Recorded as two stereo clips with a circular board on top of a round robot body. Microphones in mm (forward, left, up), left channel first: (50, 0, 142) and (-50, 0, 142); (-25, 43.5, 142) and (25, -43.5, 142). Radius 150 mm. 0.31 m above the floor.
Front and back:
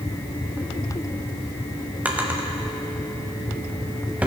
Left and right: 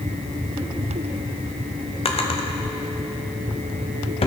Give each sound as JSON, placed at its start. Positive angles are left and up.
{"t": 2.0, "sound": "a drawer", "azimuth_deg": 105, "distance_m": 1.1}